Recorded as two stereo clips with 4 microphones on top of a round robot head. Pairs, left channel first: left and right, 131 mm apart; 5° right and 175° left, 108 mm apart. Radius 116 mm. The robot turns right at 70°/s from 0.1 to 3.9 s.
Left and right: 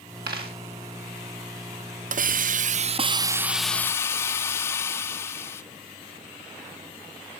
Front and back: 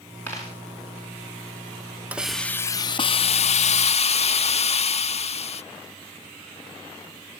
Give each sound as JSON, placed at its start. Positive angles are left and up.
{"t": 0.3, "sound": "a dropped coin", "azimuth_deg": -80, "distance_m": 1.8}
{"t": 2.1, "sound": "a hiss", "azimuth_deg": -105, "distance_m": 0.5}